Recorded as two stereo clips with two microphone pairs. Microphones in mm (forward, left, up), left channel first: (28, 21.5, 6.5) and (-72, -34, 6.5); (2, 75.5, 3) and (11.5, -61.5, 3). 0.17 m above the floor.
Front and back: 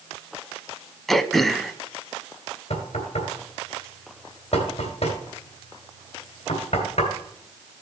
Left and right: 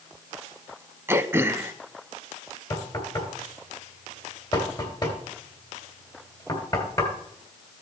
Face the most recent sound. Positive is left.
turn(degrees=35)